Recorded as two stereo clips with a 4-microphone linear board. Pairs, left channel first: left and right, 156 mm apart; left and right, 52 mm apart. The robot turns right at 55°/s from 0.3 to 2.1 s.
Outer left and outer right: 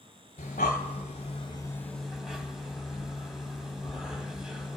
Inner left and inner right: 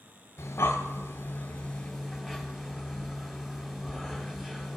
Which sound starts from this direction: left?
Breathing, at 0.4 s.